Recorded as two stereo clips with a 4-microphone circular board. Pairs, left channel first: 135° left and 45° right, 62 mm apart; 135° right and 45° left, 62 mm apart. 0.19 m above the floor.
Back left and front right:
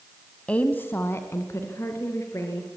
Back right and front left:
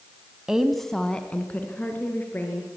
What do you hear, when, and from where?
0.5 s a woman speaking: 105° left, 1.1 m; by 2.7 s 170° left, 3 m